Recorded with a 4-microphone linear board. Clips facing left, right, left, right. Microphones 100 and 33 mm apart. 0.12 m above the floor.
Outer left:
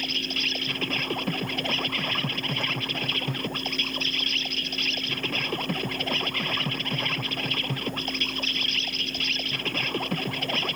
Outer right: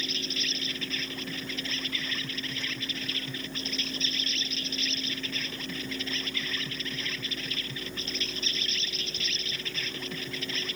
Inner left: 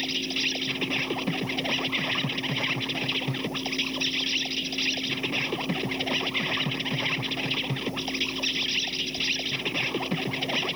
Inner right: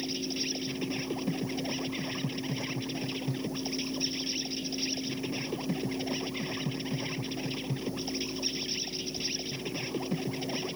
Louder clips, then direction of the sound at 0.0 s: Outer left 4 dB, inner left 6 dB; 60° left (ahead or behind).